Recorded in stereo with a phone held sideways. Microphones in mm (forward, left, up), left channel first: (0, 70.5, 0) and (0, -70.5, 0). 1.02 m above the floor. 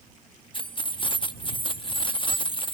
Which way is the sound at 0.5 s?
35° left (ahead or behind).